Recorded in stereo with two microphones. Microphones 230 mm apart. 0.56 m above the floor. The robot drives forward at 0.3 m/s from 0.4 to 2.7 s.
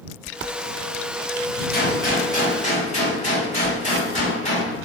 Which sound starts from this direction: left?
A gunshot, at 1.7 s.